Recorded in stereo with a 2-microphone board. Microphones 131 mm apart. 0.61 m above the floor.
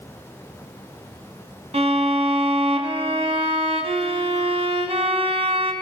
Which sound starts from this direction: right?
A violin, at 1.7 s.